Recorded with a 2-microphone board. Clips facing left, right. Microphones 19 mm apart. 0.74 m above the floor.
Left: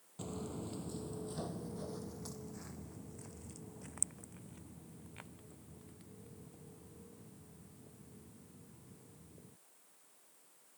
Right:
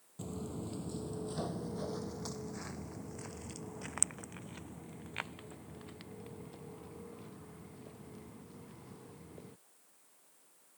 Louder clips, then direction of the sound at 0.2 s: Right 1 dB; 15° left (ahead or behind).